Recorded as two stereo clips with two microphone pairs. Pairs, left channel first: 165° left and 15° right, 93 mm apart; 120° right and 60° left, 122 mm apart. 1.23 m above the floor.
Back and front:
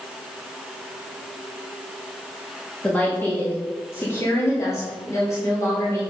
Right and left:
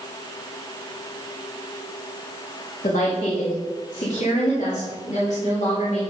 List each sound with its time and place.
2.8 s a woman speaking: 125° right, 2.5 m; by 6.0 s 140° right, 4.5 m